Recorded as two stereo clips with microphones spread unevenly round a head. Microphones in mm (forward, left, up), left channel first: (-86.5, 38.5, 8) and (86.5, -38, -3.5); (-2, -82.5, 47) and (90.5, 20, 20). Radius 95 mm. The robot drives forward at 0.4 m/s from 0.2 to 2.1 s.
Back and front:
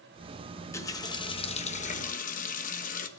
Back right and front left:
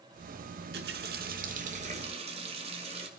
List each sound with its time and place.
0.5 s a running tap: 80° left, 1.1 m; by 3.1 s 110° left, 1.2 m